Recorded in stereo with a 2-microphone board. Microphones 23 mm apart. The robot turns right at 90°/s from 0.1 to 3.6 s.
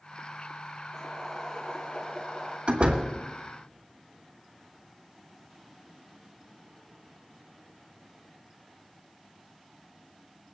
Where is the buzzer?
No buzzer in this recording.